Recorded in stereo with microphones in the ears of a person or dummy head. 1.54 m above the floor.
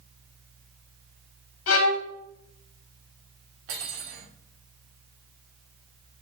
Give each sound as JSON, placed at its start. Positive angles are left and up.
{"t": 1.7, "sound": "a violin", "side_deg": 70, "distance_m": 1.5}
{"t": 3.7, "sound": "cutlery clinking", "side_deg": -80, "distance_m": 3.0}